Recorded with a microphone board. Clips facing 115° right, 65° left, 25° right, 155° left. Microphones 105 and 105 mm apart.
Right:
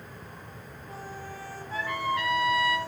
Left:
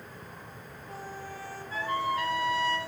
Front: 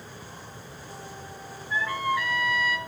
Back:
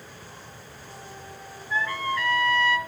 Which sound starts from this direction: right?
A trumpet, at 1.7 s.